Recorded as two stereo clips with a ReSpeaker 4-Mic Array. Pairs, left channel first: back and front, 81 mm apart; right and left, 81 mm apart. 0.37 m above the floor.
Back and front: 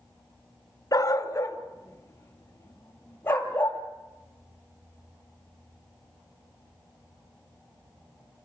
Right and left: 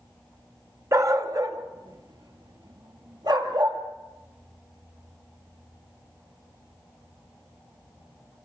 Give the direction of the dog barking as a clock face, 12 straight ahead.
7 o'clock.